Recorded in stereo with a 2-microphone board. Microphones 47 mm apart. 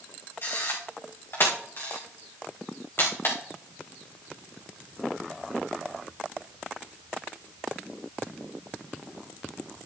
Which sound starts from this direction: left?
A camera shutter, at 0.4 s.